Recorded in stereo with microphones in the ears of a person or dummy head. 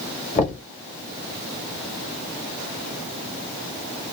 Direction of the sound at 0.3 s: 35° left (ahead or behind).